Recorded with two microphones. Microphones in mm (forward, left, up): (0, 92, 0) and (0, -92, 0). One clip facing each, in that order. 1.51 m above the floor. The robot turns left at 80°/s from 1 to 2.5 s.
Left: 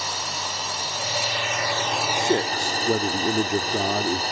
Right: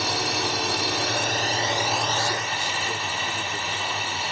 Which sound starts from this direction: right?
A drone, at 0.0 s.